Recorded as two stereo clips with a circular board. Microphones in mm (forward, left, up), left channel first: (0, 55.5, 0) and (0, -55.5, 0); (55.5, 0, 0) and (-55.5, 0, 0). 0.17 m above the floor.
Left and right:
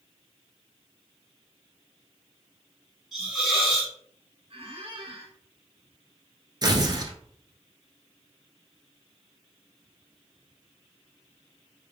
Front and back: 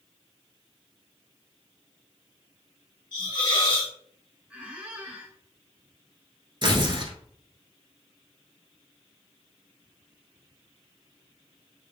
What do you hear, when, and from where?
3.1 s a hiss: straight ahead, 2 m
4.5 s a squeak: 105° right, 1.1 m
6.6 s tearing paper: 140° right, 0.7 m